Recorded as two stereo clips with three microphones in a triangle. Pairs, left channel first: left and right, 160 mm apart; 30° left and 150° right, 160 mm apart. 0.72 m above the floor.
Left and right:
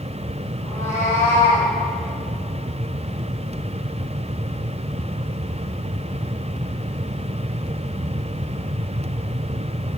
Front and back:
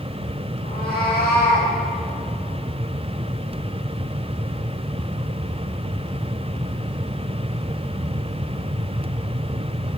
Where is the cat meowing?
15° left, 5 m; by 1.7 s 20° left, 5.5 m.